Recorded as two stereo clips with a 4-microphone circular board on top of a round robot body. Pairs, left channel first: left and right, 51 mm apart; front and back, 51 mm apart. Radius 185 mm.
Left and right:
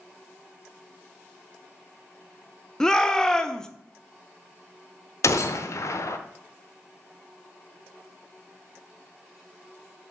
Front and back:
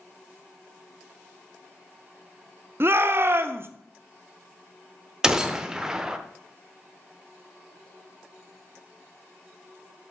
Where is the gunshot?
100° left, 0.8 m.